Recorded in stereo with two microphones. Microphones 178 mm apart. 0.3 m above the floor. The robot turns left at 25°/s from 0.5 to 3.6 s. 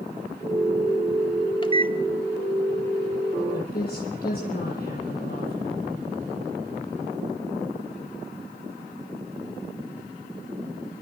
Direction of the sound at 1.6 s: 25° left (ahead or behind).